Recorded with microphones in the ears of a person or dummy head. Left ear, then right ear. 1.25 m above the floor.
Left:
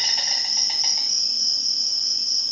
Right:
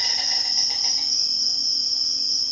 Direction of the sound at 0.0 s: 35° left (ahead or behind).